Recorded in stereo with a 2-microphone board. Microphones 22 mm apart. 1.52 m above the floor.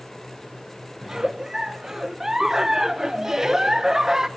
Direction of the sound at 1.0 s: 25° right (ahead or behind).